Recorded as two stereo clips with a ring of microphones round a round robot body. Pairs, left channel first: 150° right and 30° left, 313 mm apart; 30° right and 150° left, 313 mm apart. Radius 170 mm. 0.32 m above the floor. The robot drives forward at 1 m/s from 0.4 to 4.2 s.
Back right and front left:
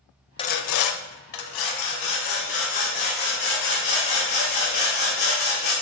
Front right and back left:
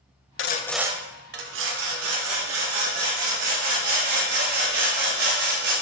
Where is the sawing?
75° right, 0.5 m; by 5.7 s 175° right, 3.5 m.